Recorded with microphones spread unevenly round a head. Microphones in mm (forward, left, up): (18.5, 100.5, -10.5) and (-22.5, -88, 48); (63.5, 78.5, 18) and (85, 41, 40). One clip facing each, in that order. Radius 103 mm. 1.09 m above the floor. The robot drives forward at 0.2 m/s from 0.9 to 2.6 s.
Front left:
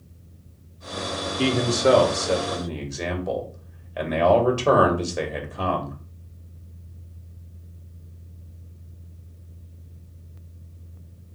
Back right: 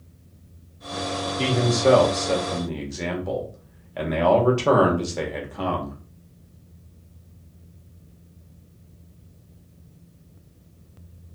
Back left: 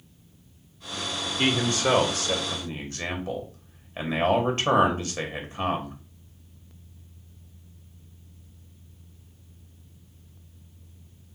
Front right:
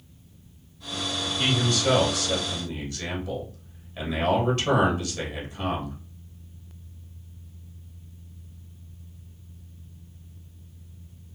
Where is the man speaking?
150° left, 0.9 m; by 6.0 s 155° left, 1.1 m.